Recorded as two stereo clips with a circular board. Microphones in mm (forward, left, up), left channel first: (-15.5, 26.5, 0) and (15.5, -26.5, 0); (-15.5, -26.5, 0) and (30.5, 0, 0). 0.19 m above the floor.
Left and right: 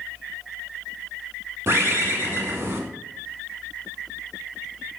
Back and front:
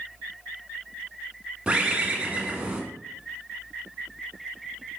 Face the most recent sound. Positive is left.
turn(degrees=-35)